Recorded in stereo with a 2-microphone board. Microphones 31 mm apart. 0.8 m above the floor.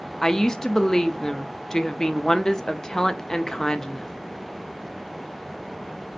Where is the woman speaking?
15° left (ahead or behind), 0.5 m.